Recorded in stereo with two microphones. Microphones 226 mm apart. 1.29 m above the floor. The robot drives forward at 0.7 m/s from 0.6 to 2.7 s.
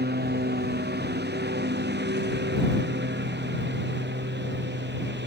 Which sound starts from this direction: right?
A lawn mower, at 0.0 s.